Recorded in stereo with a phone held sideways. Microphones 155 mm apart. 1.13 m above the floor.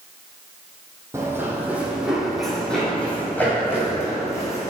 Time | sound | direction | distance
1.1 | running footsteps | 20° right (ahead or behind) | 2 m